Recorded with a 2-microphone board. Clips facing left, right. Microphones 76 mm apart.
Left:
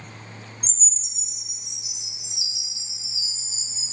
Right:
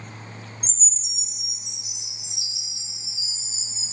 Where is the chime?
50° right (ahead or behind), 1.3 m.